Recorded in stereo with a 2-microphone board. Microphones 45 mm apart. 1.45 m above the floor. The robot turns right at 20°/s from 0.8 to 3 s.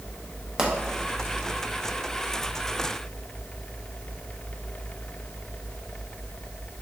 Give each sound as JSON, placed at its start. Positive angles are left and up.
{"t": 0.6, "sound": "a pop", "side_deg": -15, "distance_m": 0.8}